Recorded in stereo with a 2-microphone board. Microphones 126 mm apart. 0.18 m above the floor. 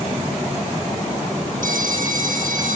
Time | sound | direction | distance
1.6 | a phone ringing | 80° right | 6 m